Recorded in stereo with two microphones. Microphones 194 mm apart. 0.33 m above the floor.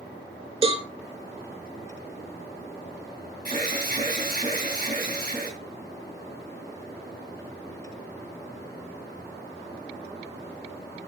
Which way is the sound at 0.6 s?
30° right (ahead or behind).